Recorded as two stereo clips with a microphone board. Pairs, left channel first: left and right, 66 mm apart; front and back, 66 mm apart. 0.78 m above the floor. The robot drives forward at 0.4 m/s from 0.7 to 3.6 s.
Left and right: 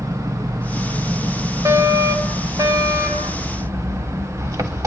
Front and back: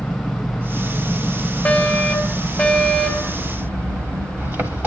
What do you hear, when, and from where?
0.0 s an engine running: 100° right, 3 m; by 4.9 s 120° right, 3 m
1.6 s a fire alarm: 75° right, 4.5 m; by 3.4 s 85° right, 4 m